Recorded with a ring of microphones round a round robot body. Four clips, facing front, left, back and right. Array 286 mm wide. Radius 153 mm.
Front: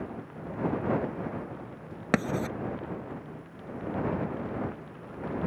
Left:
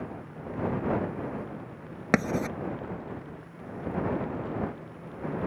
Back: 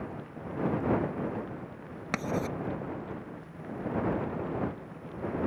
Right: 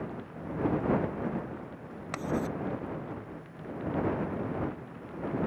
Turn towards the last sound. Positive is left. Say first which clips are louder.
# left 5 dB, front 3 dB
turn(degrees=55)